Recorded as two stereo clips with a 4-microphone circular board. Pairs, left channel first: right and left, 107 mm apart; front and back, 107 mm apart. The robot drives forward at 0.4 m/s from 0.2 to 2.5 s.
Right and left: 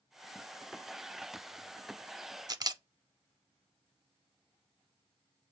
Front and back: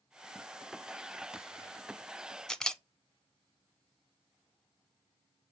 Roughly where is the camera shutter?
Left.